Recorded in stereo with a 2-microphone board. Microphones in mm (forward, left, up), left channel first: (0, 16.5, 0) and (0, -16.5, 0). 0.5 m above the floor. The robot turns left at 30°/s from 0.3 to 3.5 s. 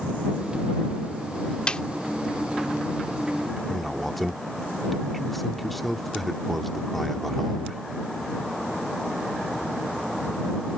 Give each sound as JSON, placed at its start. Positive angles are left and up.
{"t": 1.7, "sound": "a snare drum", "side_deg": 30}
{"t": 3.7, "sound": "a man speaking", "side_deg": 5}